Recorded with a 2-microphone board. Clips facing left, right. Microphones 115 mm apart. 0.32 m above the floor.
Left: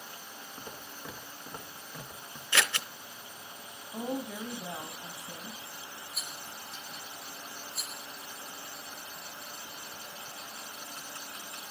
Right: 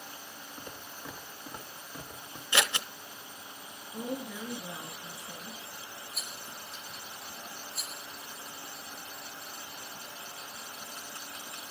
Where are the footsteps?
10° left (ahead or behind), 2.5 m; by 2.4 s 20° right (ahead or behind), 1.8 m.